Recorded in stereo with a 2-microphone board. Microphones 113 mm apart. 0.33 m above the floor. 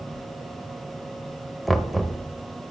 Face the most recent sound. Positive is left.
turn(degrees=0)  # may be behind; listen again after turning